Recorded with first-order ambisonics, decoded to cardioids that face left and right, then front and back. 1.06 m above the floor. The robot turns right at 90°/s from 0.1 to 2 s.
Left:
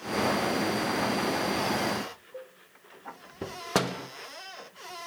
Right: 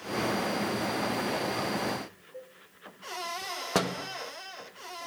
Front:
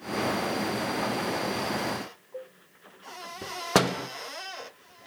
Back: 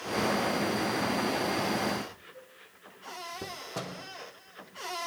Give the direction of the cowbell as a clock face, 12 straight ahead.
11 o'clock.